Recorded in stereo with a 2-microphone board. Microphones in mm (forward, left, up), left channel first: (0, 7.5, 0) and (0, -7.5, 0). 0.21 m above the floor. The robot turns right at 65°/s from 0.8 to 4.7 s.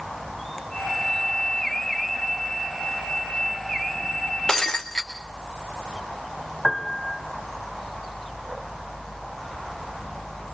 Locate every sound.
4.5 s breaking glass: 35° left (ahead or behind), 1.7 m; by 5.1 s 50° left (ahead or behind), 1.7 m
6.6 s a piano: 20° left (ahead or behind), 1.2 m